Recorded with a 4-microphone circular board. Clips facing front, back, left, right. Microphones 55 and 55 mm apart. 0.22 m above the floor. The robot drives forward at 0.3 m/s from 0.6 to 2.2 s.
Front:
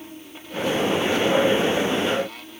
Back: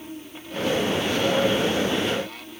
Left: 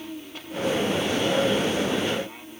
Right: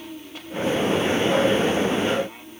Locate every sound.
Only background noise.